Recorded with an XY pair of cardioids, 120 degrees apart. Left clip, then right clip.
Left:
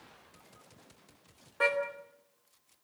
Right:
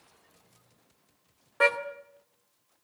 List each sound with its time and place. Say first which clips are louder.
1.6 s a car horn: right 5 dB; 30° right, 2 m